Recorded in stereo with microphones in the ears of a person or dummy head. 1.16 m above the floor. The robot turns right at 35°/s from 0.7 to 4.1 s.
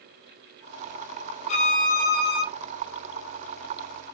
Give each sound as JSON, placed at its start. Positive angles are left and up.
{"t": 1.5, "sound": "a violin", "azimuth_deg": 40, "distance_m": 1.0}